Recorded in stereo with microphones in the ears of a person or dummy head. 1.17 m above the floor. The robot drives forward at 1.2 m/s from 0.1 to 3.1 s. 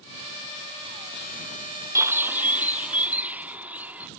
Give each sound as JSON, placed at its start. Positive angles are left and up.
{"t": 1.9, "sound": "a bird", "side_deg": -10}